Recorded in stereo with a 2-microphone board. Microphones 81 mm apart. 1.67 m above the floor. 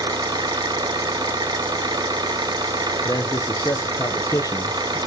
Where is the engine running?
60° right (ahead or behind), 0.7 m.